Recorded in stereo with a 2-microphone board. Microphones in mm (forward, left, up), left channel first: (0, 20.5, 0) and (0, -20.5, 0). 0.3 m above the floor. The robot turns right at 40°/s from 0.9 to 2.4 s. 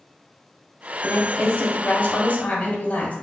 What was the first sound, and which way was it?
A woman speaking, 60° left.